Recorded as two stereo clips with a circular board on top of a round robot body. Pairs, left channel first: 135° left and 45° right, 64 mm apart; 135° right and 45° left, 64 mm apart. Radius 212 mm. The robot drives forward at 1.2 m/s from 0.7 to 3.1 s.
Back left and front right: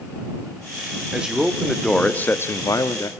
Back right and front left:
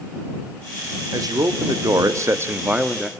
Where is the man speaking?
30° left, 2.0 m; by 3.1 s 130° left, 1.4 m.